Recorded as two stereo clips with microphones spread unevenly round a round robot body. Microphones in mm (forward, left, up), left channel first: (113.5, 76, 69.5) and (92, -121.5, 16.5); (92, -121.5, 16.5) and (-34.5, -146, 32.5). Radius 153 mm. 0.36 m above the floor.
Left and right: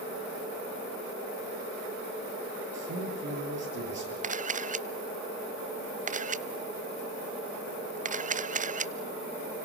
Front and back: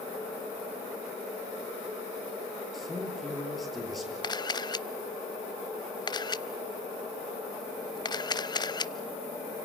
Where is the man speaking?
80° right, 10 m.